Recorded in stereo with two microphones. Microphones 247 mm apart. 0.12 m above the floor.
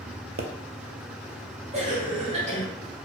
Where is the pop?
65° right (ahead or behind), 0.6 m.